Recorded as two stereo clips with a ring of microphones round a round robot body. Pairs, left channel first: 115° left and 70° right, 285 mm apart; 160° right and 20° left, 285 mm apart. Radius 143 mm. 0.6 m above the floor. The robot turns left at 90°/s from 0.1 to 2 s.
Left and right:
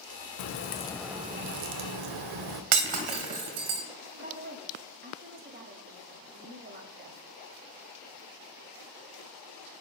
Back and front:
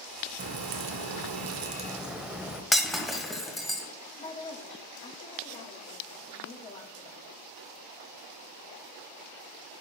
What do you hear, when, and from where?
0.4 s a crack: 80° left, 0.7 m; by 2.6 s 65° right, 0.7 m
2.7 s breaking glass: 70° right, 1.5 m
4.1 s a woman speaking: 100° right, 1.1 m